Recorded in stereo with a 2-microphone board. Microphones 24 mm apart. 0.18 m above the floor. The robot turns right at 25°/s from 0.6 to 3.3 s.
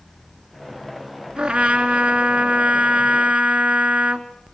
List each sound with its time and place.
1.4 s a trumpet: 100° right, 2.5 m; by 4.3 s 50° right, 2.5 m